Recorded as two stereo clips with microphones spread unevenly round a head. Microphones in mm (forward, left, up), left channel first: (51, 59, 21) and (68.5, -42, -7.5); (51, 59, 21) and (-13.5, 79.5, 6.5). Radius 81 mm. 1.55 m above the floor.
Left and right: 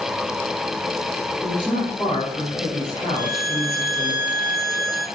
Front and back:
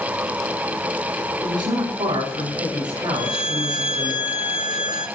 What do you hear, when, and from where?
1.4 s a woman speaking: 170° left, 5 m
3.1 s a violin: 160° left, 6 m